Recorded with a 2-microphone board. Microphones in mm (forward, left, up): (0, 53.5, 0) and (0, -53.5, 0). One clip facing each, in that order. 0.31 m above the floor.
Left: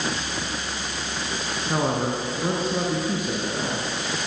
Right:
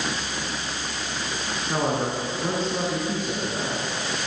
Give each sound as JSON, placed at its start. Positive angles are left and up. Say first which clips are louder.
{"t": 1.7, "sound": "a man speaking", "louder": "left 1 dB", "side_deg": 10, "distance_m": 4.5}